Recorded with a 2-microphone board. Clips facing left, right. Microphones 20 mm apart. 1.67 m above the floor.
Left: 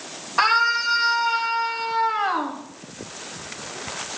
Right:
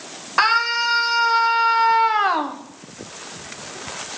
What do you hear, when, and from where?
0.4 s a scream: 35° right (ahead or behind), 1.9 m; by 2.6 s 85° right, 1.5 m